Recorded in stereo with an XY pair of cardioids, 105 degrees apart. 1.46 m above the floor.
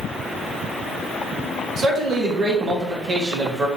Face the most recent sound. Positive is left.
turn(degrees=-45)